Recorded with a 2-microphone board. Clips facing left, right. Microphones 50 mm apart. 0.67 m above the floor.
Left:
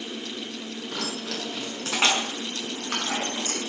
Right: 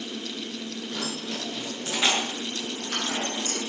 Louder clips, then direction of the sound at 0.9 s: Left 1 dB; 80° left.